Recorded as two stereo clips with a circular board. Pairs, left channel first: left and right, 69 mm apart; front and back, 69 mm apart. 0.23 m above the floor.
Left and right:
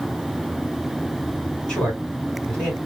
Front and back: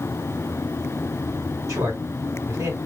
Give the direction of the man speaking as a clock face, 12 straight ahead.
6 o'clock.